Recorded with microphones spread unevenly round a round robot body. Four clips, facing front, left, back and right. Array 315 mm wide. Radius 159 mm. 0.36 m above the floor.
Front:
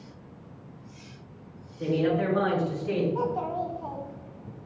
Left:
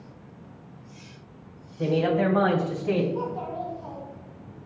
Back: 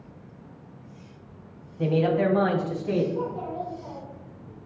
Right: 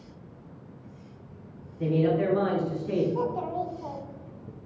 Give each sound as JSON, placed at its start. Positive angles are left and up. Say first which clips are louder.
{"t": 1.8, "sound": "a man speaking", "louder": "left 1 dB, back 3 dB", "azimuth_deg": 145, "distance_m": 2.5}
{"t": 3.1, "sound": "a child speaking", "louder": "right 2 dB, front 2 dB", "azimuth_deg": -10, "distance_m": 1.6}